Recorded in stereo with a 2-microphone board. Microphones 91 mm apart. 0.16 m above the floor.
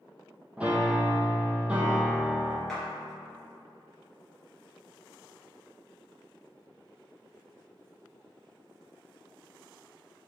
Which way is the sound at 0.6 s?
10° right (ahead or behind).